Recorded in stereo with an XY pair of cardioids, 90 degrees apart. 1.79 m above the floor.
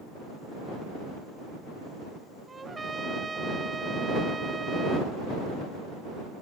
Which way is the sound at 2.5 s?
30° right.